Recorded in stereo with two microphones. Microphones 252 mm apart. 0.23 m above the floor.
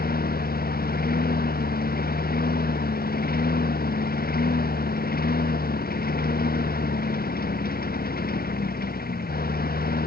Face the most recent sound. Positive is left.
turn(degrees=35)  # may be behind; listen again after turning